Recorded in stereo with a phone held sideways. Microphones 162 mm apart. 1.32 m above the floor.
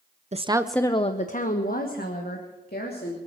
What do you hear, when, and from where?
0.3 s a woman speaking: 45° right (ahead or behind), 0.7 m; by 3.2 s 75° left (ahead or behind), 3 m